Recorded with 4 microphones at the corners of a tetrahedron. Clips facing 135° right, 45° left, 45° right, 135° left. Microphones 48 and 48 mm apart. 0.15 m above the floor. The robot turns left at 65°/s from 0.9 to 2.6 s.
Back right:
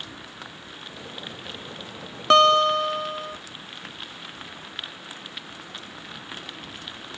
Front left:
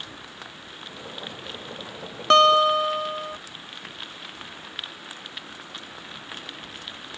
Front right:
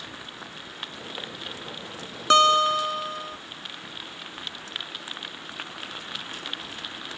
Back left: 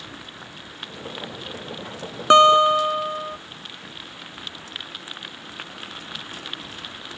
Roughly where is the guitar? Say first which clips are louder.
Even, back left 5 dB; behind left.